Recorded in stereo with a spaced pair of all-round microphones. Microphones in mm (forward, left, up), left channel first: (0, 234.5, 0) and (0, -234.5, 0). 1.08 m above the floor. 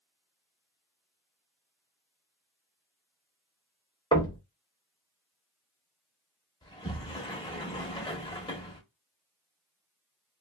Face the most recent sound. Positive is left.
turn(degrees=10)  # may be behind; listen again after turning